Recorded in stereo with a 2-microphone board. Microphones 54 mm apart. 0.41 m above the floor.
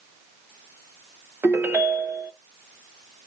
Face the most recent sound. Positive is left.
turn(degrees=-45)  # may be behind; listen again after turning